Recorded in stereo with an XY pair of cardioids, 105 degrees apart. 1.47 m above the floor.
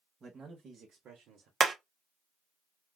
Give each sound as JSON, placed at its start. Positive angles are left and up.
{"t": 0.2, "sound": "a man speaking", "azimuth_deg": -40, "distance_m": 1.1}
{"t": 1.6, "sound": "hammering", "azimuth_deg": -40, "distance_m": 0.7}